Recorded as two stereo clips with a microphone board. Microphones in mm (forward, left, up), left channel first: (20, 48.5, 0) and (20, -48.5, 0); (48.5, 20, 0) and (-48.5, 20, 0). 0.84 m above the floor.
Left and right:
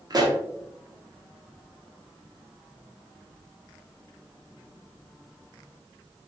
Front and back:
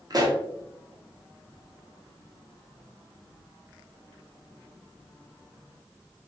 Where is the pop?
135° right, 0.6 m.